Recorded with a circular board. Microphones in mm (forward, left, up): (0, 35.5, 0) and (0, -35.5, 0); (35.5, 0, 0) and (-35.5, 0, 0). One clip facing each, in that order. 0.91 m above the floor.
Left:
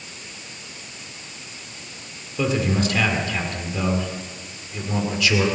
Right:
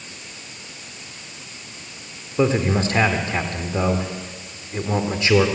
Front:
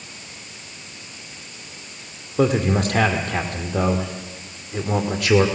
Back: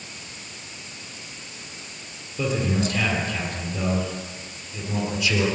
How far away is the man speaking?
About 2.5 m.